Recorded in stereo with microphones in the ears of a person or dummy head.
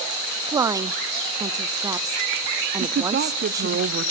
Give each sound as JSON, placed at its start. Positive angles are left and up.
{"t": 0.5, "sound": "a woman speaking", "side_deg": -20, "distance_m": 0.6}
{"t": 2.8, "sound": "a woman speaking", "side_deg": -55, "distance_m": 1.1}